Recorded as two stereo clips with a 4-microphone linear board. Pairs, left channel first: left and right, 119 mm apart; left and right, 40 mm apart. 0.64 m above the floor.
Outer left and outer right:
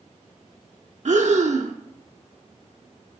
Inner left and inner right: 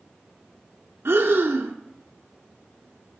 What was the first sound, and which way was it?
Breathing, 75° right (ahead or behind).